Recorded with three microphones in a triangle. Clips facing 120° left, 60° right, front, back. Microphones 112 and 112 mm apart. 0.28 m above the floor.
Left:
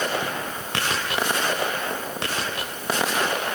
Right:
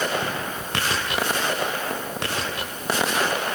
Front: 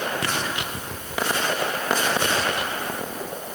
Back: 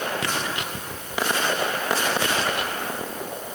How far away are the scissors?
I don't hear scissors.